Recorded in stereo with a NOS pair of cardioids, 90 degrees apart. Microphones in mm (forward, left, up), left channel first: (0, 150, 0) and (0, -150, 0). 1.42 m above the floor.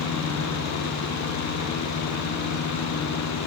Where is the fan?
70° left, 0.8 m.